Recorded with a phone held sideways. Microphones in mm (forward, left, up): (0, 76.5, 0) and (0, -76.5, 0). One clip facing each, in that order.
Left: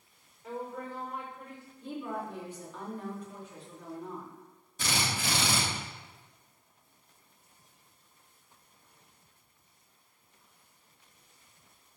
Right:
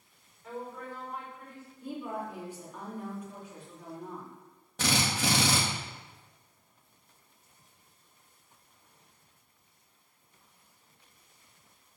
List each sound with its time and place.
0.4 s a woman speaking: 15° left (ahead or behind), 6 m
1.8 s a woman speaking: 10° right (ahead or behind), 4 m
4.8 s a drill: 70° right (ahead or behind), 2.5 m